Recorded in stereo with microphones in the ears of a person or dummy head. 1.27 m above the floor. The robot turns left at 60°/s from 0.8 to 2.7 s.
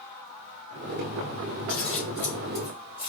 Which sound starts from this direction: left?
Scissors, at 1.7 s.